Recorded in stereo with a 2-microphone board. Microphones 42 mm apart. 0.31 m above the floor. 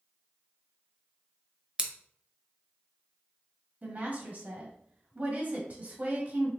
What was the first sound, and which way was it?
Scissors, 25° right (ahead or behind).